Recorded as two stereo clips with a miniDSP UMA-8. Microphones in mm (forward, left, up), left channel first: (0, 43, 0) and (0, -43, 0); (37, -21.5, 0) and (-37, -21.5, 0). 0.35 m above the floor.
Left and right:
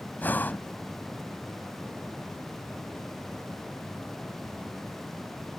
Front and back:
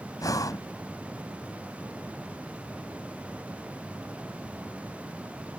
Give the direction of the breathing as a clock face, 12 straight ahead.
11 o'clock.